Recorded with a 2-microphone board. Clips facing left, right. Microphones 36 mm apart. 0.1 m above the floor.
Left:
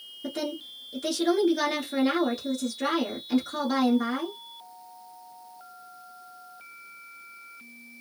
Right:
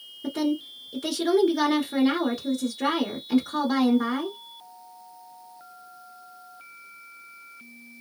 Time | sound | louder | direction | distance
0.2 | a woman speaking | right 6 dB | 5° right (ahead or behind) | 1.1 m